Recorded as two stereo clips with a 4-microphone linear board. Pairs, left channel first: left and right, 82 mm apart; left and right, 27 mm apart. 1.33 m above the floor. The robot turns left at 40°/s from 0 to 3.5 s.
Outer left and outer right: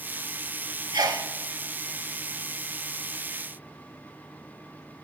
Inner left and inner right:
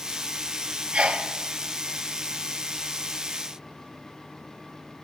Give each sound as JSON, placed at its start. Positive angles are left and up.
{"t": 0.9, "sound": "a sneeze", "side_deg": -50, "distance_m": 0.7}